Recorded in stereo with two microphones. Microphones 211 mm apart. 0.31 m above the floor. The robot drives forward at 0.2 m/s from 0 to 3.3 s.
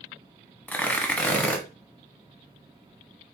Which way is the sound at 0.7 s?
10° left (ahead or behind).